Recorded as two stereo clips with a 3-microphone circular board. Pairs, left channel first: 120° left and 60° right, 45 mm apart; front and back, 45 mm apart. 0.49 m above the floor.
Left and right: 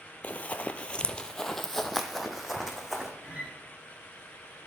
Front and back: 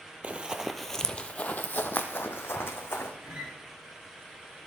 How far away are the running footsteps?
About 0.6 m.